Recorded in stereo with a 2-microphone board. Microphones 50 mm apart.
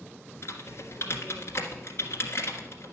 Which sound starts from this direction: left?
Typing on a keyboard, at 0.4 s.